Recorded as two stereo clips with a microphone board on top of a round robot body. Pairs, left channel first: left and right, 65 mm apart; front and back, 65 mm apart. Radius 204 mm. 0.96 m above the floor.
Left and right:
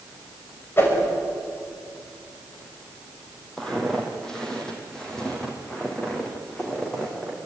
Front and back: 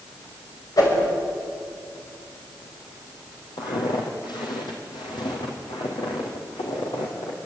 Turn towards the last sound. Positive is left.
turn(degrees=10)